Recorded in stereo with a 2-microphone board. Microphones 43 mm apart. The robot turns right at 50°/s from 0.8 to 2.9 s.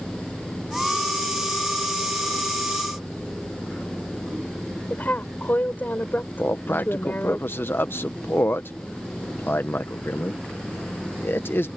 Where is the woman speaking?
50° left (ahead or behind).